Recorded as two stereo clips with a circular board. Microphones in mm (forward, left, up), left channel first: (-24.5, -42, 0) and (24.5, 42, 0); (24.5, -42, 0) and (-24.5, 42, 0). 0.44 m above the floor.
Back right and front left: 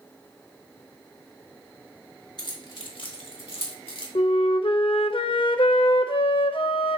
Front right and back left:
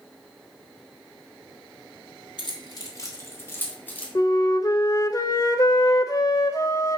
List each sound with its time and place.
2.4 s keys jangling: 85° right, 1.5 m; by 4.0 s 135° right, 2.5 m
4.2 s a flute: 110° right, 0.6 m